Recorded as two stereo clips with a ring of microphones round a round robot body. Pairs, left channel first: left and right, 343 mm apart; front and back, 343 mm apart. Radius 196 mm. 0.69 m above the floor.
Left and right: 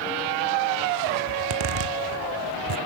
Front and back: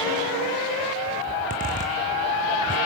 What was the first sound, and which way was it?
A zipper, 110° right.